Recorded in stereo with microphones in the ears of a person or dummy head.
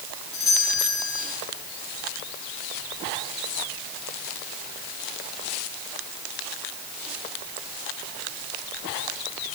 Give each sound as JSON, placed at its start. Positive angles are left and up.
{"t": 0.3, "sound": "a doorbell", "side_deg": 50, "distance_m": 9.5}